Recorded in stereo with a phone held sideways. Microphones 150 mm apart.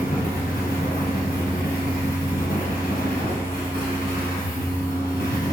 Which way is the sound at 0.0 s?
85° left.